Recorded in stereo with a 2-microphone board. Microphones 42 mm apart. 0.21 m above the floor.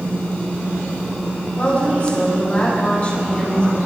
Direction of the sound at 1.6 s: 40° left (ahead or behind).